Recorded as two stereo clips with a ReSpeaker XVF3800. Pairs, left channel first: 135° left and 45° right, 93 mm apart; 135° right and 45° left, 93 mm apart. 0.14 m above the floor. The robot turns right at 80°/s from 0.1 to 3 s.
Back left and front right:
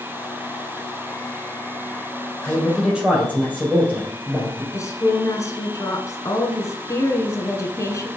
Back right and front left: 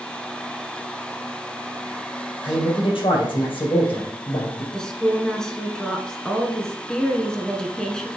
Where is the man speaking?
165° right, 4 m; by 4.6 s 120° right, 4 m.